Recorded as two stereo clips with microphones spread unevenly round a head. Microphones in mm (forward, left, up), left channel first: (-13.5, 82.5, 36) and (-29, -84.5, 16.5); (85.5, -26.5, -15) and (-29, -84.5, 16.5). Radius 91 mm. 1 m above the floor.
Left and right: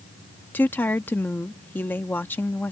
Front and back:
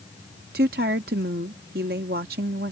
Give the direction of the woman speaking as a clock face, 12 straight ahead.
7 o'clock.